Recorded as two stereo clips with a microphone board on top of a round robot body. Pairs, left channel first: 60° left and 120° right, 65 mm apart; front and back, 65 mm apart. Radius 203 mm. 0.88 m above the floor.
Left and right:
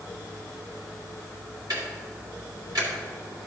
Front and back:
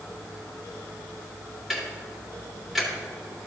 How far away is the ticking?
About 2.0 m.